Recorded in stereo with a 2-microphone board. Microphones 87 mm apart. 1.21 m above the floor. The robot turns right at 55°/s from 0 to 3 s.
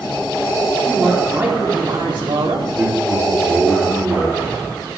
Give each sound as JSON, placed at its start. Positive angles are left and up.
{"t": 0.8, "sound": "a man speaking", "azimuth_deg": 175, "distance_m": 3.5}
{"t": 2.7, "sound": "a man speaking", "side_deg": -15, "distance_m": 3.0}